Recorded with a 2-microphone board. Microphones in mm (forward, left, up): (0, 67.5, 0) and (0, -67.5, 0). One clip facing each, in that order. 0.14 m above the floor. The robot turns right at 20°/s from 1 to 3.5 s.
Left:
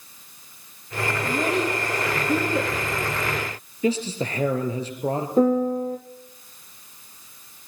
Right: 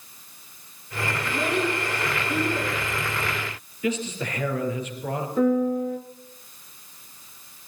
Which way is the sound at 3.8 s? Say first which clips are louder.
Left 4 dB; 35° left (ahead or behind).